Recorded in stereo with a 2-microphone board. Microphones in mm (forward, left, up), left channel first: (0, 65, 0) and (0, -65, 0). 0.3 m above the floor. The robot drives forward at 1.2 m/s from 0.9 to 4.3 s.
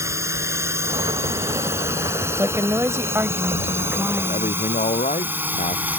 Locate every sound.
0.0 s a drone: 20° right (ahead or behind); by 6.0 s 15° right (ahead or behind)
2.4 s a woman speaking: 20° right (ahead or behind); by 4.7 s 10° right (ahead or behind)
4.3 s a man speaking: 75° left (ahead or behind)